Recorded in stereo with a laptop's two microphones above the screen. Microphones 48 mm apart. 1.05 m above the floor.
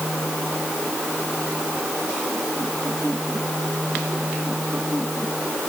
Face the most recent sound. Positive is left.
No sound to turn to.